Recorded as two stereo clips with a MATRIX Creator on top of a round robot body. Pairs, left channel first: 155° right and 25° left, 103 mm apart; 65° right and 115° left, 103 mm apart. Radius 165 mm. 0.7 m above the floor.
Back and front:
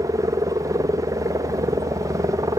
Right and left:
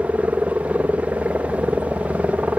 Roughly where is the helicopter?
Ahead left.